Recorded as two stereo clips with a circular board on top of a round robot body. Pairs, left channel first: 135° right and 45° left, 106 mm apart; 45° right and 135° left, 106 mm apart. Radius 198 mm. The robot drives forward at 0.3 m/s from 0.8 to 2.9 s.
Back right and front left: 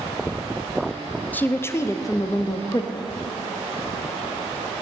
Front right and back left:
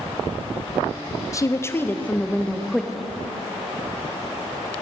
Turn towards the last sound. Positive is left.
turn(degrees=-135)